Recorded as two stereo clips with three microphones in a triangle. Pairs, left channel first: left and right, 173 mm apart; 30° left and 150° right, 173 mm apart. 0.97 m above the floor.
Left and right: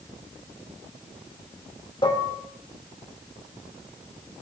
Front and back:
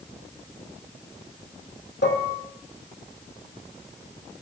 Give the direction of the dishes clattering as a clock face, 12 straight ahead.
11 o'clock.